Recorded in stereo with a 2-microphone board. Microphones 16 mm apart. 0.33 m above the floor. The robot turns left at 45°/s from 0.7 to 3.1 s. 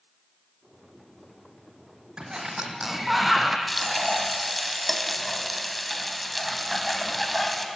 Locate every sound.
2.2 s a sliding door: 130° right, 2.5 m; by 3.6 s 170° right, 2.5 m
3.7 s frying: centre (ahead or behind), 2.5 m